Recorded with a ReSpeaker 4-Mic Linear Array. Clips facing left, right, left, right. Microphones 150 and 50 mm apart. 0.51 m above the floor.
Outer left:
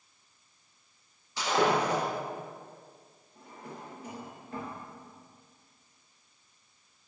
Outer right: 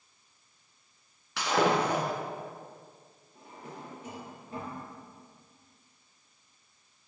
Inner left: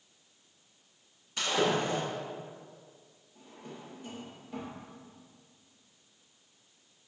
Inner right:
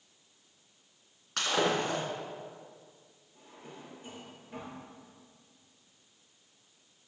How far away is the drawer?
About 2.5 m.